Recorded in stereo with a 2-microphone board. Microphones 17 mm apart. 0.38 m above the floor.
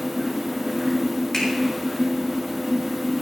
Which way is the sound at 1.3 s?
40° left (ahead or behind).